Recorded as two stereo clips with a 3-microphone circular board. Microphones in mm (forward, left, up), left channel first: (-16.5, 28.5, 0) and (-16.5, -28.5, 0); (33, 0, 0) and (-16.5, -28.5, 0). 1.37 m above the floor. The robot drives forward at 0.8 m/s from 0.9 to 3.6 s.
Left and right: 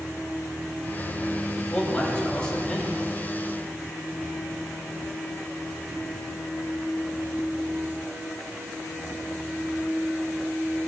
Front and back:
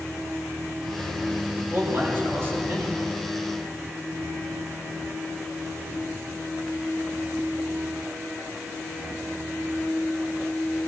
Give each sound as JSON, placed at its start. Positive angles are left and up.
{"t": 1.6, "sound": "a man speaking", "azimuth_deg": 160, "distance_m": 2.5}